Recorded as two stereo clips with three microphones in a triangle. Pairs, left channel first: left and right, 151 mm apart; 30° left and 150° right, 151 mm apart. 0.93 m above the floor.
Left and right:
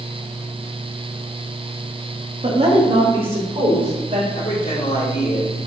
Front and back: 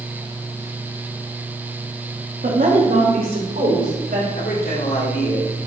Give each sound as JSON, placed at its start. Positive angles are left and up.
{"t": 2.4, "sound": "a woman speaking", "azimuth_deg": -135, "distance_m": 2.0}
{"t": 4.3, "sound": "a man speaking", "azimuth_deg": 50, "distance_m": 3.0}